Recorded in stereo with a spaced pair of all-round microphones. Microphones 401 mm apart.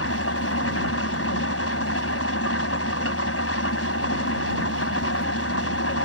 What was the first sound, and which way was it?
An engine running, 35° left (ahead or behind).